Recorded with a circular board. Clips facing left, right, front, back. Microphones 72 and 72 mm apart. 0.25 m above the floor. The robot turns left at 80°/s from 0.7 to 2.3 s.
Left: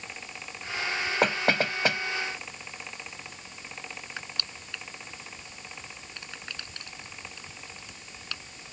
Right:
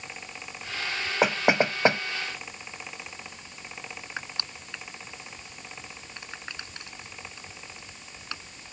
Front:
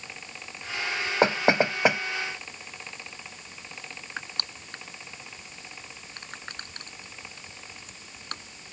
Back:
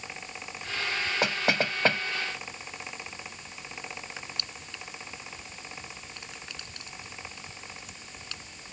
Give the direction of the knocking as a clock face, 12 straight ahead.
12 o'clock.